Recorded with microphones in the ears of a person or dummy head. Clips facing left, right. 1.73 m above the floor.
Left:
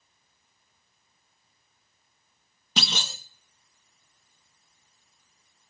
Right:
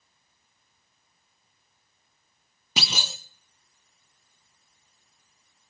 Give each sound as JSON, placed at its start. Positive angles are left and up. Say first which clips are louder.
{"t": 2.8, "sound": "a clunk", "louder": "left 1 dB", "side_deg": 0, "distance_m": 0.9}